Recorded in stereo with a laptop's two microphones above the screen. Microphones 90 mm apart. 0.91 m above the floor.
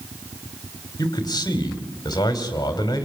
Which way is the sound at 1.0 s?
45° left (ahead or behind).